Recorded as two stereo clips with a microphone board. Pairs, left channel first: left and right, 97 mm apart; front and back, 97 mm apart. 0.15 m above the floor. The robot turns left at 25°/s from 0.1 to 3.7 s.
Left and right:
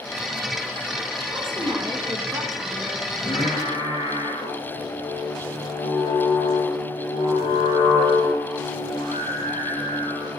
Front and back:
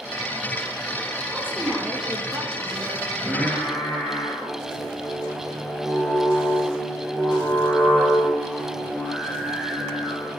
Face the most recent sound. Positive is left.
turn(degrees=75)